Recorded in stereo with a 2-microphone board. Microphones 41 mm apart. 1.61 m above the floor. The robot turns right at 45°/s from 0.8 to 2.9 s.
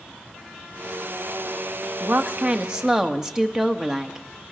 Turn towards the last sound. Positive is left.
turn(degrees=-10)